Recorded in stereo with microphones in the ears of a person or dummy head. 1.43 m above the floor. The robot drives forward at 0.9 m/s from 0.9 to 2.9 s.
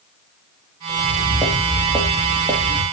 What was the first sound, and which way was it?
Footsteps, 10° left (ahead or behind).